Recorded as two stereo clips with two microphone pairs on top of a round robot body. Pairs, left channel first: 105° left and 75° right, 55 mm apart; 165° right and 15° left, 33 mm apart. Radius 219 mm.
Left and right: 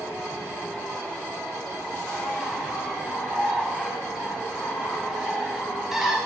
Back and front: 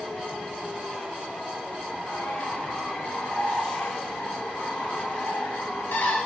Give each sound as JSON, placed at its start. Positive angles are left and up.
{"t": 2.1, "sound": "a bird", "azimuth_deg": -160, "distance_m": 3.0}